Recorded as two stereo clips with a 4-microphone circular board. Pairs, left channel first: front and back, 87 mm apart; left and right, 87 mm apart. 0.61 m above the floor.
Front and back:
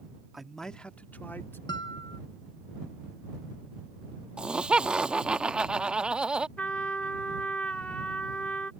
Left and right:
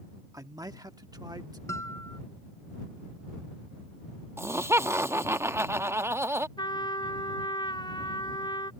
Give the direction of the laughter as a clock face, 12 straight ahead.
4 o'clock.